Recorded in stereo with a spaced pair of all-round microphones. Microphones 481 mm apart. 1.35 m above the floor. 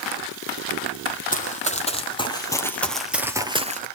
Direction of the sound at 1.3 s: 15° left (ahead or behind).